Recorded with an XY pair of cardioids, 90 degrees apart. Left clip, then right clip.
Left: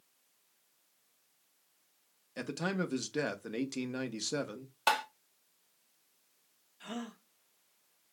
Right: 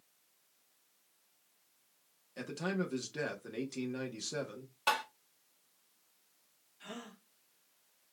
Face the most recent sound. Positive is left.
turn(degrees=35)